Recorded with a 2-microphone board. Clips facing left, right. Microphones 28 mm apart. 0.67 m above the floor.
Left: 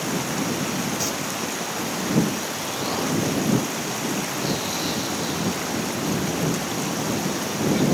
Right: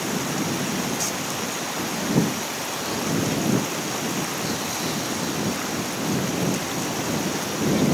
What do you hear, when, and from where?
1.0 s singing: 15° left (ahead or behind)
2.6 s an explosion: 25° left (ahead or behind)